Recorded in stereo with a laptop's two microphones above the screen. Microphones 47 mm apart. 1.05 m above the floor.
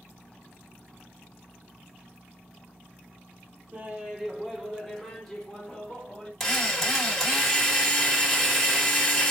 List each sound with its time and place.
3.7 s laughter: 30° right (ahead or behind), 0.8 m; by 6.3 s 20° left (ahead or behind), 1.7 m
6.4 s a drill: 10° left (ahead or behind), 1.7 m